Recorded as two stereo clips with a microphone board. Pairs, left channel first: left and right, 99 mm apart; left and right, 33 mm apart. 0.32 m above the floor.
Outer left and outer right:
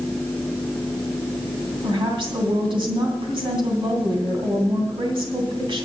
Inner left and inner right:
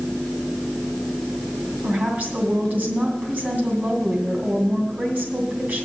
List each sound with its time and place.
1.8 s a woman speaking: 55° right (ahead or behind), 2.5 m